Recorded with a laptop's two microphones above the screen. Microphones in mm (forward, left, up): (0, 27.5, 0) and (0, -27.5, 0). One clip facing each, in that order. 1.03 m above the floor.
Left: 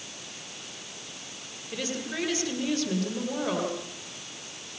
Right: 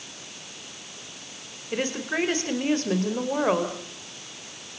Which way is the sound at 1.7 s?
40° right (ahead or behind).